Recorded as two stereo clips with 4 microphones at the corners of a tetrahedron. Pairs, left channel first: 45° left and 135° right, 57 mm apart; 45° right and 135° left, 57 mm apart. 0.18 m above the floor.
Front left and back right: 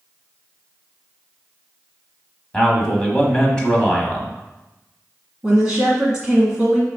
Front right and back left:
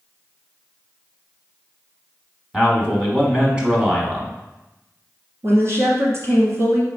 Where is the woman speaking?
155° left, 1.6 m.